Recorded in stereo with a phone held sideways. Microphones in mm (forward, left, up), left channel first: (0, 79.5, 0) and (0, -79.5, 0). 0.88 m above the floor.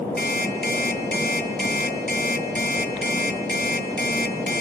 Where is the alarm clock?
70° left (ahead or behind), 3 m.